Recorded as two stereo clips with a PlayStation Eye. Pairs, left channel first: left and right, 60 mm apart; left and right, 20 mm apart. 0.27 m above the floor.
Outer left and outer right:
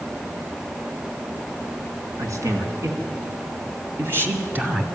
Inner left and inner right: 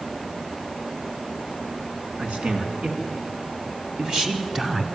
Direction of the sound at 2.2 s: 65° right (ahead or behind).